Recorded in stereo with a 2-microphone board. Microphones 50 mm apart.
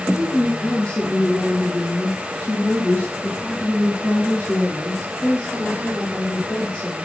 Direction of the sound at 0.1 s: 15° left (ahead or behind).